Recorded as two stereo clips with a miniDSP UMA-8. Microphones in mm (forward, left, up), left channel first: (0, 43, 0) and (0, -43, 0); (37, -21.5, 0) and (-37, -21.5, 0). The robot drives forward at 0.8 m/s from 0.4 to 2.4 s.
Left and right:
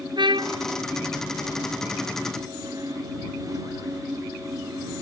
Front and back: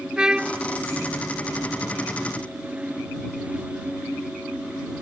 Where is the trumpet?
100° right; by 0.6 s 105° right.